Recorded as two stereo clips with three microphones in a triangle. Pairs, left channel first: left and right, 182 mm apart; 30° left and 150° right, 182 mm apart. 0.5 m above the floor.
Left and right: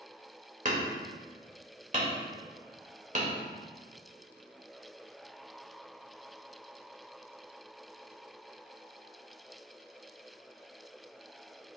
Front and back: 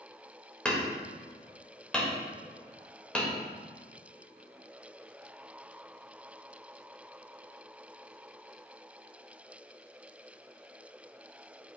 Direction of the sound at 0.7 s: 55° right.